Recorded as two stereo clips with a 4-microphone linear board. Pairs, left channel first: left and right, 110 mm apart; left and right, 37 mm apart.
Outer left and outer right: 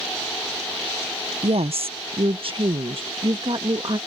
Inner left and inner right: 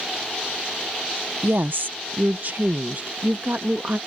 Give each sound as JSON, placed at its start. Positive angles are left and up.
{"t": 1.4, "sound": "a woman speaking", "side_deg": -65}